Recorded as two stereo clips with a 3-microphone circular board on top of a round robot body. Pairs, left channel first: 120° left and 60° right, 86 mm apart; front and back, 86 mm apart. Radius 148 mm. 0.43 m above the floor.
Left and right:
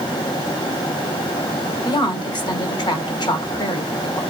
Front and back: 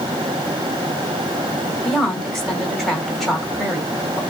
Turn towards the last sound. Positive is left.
turn(degrees=85)